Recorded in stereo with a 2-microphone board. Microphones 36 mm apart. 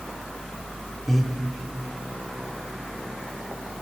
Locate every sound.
1.1 s breathing: centre (ahead or behind), 2.5 m